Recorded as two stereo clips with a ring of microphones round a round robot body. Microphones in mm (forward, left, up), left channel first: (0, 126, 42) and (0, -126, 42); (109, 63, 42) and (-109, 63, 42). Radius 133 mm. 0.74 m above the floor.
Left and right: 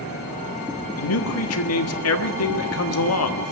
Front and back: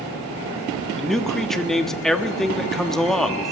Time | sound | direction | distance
1.0 | a man speaking | 90° left | 1.4 m